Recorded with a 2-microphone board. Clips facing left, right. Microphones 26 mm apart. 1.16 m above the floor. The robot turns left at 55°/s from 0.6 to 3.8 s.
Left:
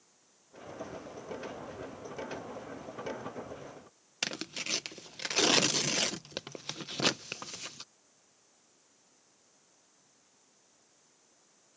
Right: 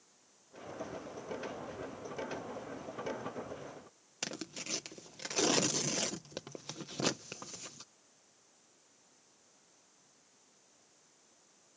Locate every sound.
4.2 s tearing paper: 70° left (ahead or behind)